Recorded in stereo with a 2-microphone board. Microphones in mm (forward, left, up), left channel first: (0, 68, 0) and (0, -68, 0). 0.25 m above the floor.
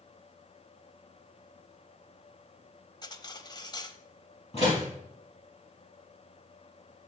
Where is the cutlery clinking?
30° left (ahead or behind), 0.5 m.